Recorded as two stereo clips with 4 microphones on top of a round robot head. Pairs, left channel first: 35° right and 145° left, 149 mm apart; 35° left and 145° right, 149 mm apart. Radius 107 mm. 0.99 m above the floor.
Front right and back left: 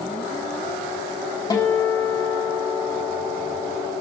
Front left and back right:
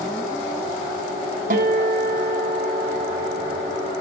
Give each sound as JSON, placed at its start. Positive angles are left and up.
{"t": 1.5, "sound": "a guitar", "azimuth_deg": -105, "distance_m": 1.6}